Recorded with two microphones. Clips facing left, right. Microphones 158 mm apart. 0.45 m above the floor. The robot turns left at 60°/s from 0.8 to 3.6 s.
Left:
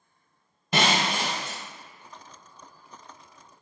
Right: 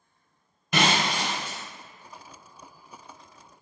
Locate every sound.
0.7 s breaking glass: 150° left, 1.0 m; by 1.6 s 100° left, 1.0 m